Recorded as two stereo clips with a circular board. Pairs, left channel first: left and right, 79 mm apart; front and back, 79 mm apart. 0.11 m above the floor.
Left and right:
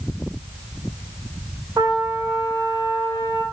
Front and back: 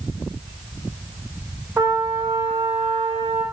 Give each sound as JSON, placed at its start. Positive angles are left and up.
{"t": 1.8, "sound": "a trumpet", "azimuth_deg": -130, "distance_m": 5.0}